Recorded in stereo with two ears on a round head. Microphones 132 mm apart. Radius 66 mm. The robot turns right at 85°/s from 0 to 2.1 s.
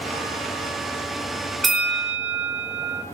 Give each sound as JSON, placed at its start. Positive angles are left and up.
{"t": 1.6, "sound": "a bell", "azimuth_deg": 180, "distance_m": 0.8}